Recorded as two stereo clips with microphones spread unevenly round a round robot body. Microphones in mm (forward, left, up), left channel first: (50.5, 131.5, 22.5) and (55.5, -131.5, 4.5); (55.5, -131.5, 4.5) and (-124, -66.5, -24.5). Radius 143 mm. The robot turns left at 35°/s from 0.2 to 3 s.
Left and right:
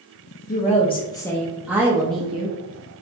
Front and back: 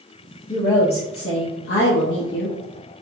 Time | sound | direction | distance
0.5 | a woman speaking | 35° left | 0.6 m